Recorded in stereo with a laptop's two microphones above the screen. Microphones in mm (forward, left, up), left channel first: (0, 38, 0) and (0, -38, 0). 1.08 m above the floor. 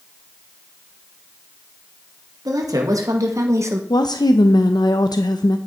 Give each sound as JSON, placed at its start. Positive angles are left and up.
{"t": 2.5, "sound": "a woman speaking", "side_deg": -55, "distance_m": 1.9}
{"t": 3.9, "sound": "a woman speaking", "side_deg": 70, "distance_m": 0.7}